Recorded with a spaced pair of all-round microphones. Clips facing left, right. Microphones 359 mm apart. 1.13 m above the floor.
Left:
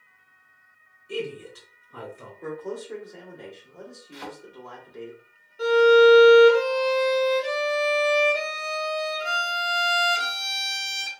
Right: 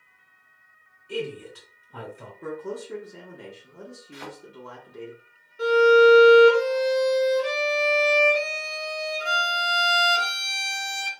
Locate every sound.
1.1 s a man speaking: 10° left (ahead or behind), 2.5 m
2.4 s a man speaking: 20° right (ahead or behind), 1.0 m
4.1 s a thud: 5° right (ahead or behind), 1.1 m
5.6 s a violin: 10° right (ahead or behind), 1.4 m